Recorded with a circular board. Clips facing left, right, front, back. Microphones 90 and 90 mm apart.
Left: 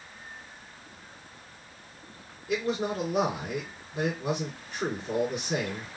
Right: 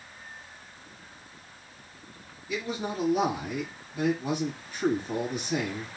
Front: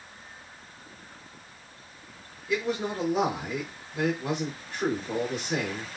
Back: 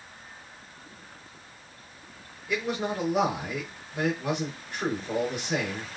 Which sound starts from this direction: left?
A man speaking, at 2.5 s.